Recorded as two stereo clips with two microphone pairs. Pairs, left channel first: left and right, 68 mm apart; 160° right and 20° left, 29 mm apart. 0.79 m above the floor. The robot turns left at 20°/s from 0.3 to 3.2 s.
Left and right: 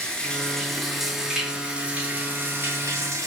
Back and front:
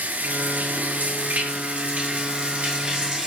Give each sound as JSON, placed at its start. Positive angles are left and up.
{"t": 0.0, "sound": "running water", "azimuth_deg": 15, "distance_m": 7.0}